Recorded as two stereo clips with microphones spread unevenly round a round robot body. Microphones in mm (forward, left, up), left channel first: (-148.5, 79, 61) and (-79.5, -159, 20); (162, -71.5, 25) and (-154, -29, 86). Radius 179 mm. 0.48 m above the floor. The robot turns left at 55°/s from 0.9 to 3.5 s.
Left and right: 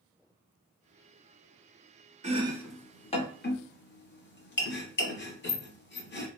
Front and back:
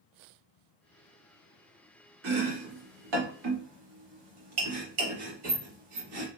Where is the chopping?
140° right, 1.0 m; by 6.3 s 150° left, 1.0 m.